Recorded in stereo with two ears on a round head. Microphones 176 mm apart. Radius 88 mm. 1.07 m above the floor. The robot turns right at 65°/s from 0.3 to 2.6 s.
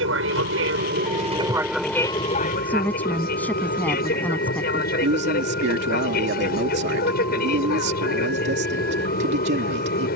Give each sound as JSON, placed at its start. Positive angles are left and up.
{"t": 0.0, "sound": "an aircraft", "azimuth_deg": -95}
{"t": 2.6, "sound": "a woman speaking", "side_deg": 10}
{"t": 5.0, "sound": "a man speaking", "side_deg": -60}